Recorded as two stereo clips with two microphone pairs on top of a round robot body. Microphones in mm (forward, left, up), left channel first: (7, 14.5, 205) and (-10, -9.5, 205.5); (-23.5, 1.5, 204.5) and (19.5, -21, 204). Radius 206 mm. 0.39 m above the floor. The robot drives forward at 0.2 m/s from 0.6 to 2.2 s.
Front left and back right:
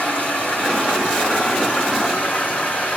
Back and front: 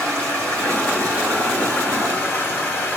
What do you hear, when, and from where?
0.0 s running water: 90° left, 2 m; by 3.0 s 95° left, 2 m